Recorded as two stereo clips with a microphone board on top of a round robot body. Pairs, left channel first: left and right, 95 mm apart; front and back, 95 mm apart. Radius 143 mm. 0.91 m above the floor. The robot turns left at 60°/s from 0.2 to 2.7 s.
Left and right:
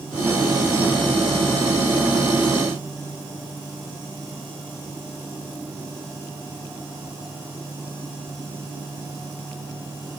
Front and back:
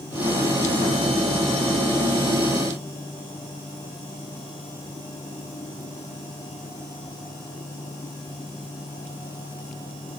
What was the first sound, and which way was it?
Only background noise.